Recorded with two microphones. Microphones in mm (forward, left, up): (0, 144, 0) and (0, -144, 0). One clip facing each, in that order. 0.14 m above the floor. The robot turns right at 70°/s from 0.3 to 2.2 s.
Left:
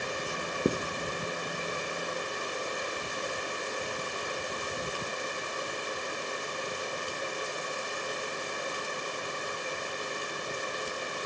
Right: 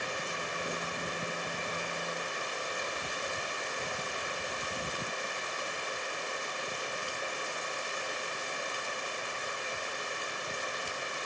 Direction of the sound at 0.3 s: 70° left (ahead or behind).